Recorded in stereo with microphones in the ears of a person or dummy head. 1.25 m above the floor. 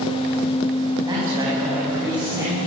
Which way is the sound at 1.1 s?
15° right (ahead or behind).